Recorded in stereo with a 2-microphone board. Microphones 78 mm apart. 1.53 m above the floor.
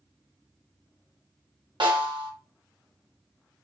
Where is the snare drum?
80° right, 1.1 m.